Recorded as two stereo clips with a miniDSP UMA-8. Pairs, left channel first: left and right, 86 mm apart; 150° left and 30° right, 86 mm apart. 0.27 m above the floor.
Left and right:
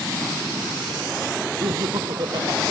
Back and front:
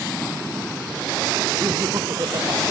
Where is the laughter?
65° right.